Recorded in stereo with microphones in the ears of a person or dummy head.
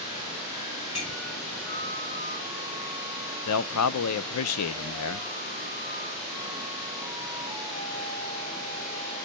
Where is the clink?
30° left (ahead or behind), 3 m.